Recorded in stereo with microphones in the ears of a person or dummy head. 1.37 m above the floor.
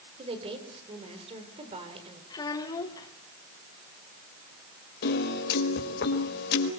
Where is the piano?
55° left (ahead or behind), 4.5 m.